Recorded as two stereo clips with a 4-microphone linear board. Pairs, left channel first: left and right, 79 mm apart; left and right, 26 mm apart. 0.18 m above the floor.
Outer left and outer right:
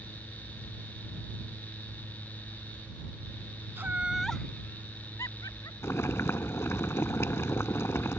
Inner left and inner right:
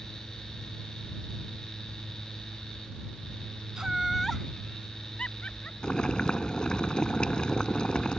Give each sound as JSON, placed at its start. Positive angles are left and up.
{"t": 3.8, "sound": "laughter", "side_deg": -30}
{"t": 5.8, "sound": "boiling", "side_deg": 35}